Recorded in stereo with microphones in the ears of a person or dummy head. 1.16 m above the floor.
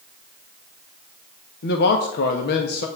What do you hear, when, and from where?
1.6 s a man speaking: 65° left (ahead or behind), 1.2 m